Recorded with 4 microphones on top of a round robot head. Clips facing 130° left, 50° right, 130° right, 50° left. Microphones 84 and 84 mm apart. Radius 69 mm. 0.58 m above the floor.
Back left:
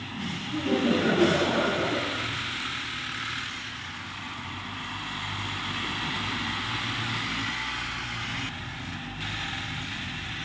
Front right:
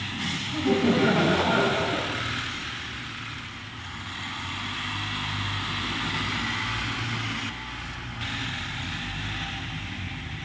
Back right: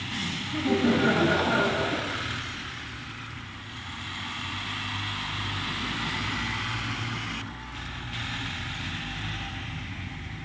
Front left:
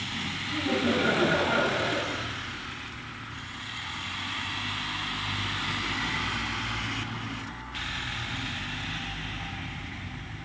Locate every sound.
0.5 s laughter: 60° right, 4.5 m